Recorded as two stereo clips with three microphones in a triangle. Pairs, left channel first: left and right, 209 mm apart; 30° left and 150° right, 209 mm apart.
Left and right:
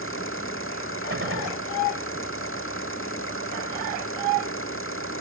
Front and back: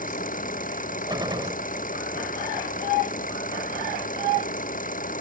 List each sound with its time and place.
0.0 s an engine running: 80° left
1.1 s a gunshot: 80° right